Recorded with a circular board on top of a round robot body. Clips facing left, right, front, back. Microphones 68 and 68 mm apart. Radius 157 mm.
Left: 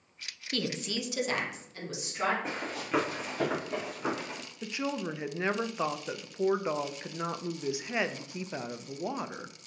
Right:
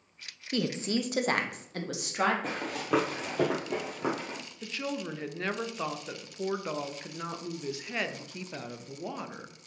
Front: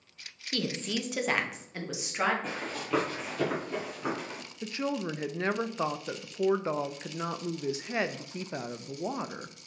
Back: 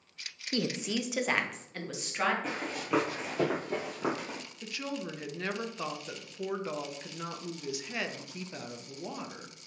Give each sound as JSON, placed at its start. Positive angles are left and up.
{"t": 0.5, "sound": "a woman speaking", "azimuth_deg": -150, "distance_m": 0.7}
{"t": 2.4, "sound": "running footsteps", "azimuth_deg": -90, "distance_m": 1.5}
{"t": 4.6, "sound": "a woman speaking", "azimuth_deg": 30, "distance_m": 0.5}